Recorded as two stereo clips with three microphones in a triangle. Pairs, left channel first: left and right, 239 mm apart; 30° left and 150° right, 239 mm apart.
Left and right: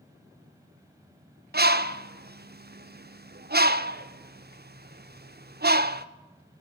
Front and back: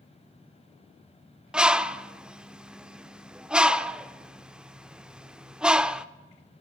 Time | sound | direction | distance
1.5 | a bird | 65° right | 0.6 m